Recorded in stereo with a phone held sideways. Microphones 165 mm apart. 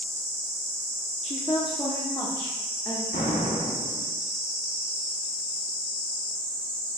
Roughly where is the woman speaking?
Left.